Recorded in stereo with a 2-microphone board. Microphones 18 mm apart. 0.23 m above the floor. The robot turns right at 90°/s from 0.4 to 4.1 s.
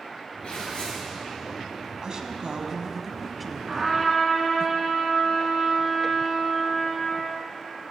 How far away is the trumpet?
About 2.5 m.